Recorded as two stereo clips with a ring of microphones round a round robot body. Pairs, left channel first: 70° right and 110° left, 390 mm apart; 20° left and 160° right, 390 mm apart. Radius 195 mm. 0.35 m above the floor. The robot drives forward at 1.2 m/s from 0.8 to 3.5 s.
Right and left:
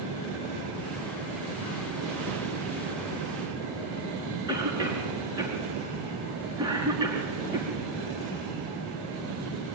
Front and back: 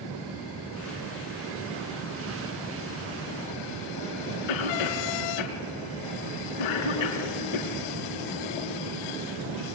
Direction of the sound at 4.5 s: 30° left.